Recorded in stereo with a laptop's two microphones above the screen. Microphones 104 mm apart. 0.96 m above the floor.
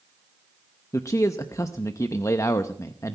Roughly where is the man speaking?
Left.